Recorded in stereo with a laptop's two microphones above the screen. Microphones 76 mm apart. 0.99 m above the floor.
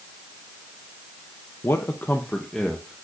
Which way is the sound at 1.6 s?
40° left (ahead or behind).